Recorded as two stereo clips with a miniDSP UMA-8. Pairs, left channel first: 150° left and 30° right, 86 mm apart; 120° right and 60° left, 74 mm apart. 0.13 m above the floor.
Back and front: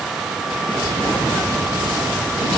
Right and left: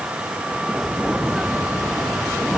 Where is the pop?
I don't hear a pop.